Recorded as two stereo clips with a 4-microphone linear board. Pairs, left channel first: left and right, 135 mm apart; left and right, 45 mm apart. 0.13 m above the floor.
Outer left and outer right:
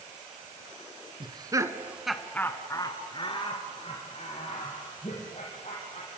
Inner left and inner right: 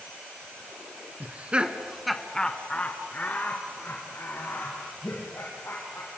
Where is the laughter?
35° right (ahead or behind), 1.9 m; by 6.2 s 55° left (ahead or behind), 6 m.